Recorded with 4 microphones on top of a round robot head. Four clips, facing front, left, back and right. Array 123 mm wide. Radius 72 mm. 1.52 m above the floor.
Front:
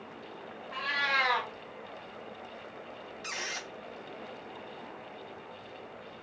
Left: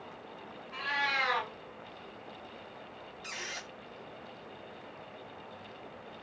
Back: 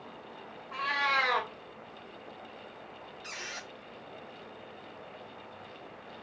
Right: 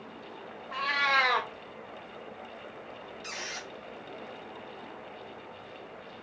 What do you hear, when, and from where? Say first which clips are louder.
0.7 s a cat meowing: right 6 dB, back 2 dB; 105° right, 1.7 m
3.2 s a squeak: right 2 dB, front 4 dB; 10° right, 0.8 m